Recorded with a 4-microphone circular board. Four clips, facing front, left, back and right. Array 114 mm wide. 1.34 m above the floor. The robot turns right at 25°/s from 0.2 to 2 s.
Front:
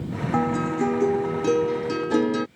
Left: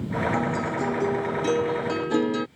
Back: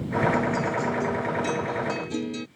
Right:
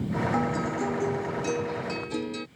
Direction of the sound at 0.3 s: 5° right.